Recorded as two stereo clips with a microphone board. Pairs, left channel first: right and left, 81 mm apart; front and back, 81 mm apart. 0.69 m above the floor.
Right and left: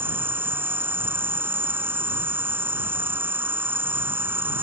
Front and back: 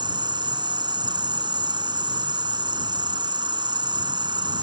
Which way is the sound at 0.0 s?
155° left.